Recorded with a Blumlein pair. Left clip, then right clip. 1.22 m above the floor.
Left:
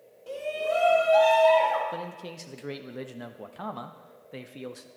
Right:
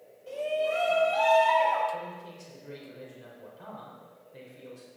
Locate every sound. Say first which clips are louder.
0.3 s a shout: even; 20° left, 3 m; by 1.8 s 30° left, 3.5 m
1.9 s a man speaking: left 1 dB; 45° left, 1.0 m